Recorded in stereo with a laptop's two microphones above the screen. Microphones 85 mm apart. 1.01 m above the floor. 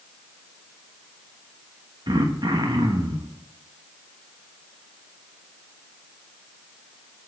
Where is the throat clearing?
60° right (ahead or behind), 1.1 m.